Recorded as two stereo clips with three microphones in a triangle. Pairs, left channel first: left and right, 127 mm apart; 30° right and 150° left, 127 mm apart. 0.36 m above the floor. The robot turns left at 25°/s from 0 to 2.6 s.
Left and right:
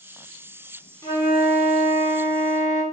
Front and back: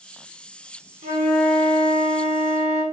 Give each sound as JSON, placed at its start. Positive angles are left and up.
{"t": 1.0, "sound": "a flute", "azimuth_deg": 150, "distance_m": 3.0}